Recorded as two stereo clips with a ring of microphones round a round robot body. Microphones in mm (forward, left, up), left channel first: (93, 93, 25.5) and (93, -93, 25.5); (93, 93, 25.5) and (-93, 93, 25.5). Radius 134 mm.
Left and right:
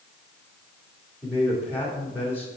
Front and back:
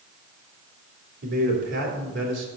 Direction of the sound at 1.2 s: 170° right.